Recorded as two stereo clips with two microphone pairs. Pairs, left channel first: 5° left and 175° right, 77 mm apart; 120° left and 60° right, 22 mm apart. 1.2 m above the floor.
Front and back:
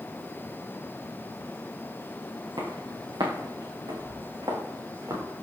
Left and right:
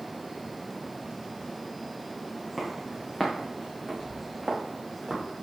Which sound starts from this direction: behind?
Footsteps, at 2.6 s.